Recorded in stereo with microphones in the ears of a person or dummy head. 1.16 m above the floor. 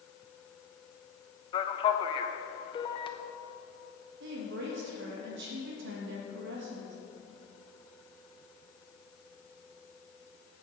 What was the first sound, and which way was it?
A man speaking, 25° left (ahead or behind).